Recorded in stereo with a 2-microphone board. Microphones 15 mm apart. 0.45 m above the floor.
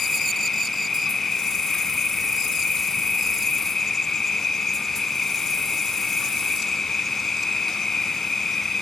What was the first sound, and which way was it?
An insect, 40° left (ahead or behind).